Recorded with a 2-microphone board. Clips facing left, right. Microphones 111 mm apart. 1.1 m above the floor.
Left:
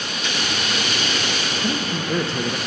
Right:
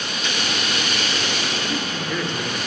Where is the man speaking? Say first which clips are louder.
Left 2 dB; 35° left (ahead or behind), 0.8 m.